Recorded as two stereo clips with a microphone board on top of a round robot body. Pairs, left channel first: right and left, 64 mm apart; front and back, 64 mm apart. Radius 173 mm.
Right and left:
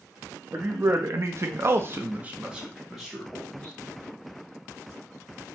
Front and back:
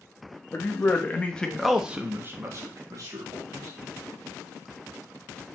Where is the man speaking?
45° left, 1.1 m; by 3.7 s 175° right, 1.4 m.